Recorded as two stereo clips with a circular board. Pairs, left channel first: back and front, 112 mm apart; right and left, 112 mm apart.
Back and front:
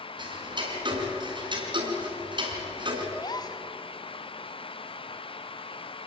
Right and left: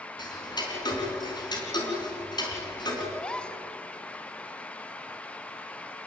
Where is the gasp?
165° right, 1.1 m.